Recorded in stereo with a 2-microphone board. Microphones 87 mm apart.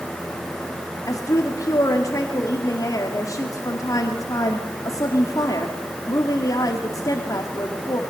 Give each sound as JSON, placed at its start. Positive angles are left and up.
{"t": 1.1, "sound": "a woman speaking", "side_deg": 40, "distance_m": 2.0}